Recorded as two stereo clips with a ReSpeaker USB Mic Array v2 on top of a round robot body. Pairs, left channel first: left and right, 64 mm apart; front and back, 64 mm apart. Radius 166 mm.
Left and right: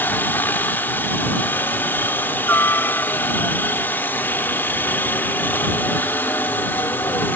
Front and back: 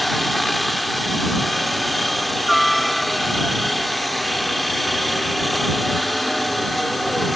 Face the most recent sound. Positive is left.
turn(degrees=85)